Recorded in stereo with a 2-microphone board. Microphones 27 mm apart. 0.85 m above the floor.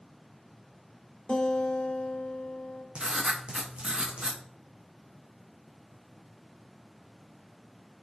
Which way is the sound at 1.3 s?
35° left (ahead or behind).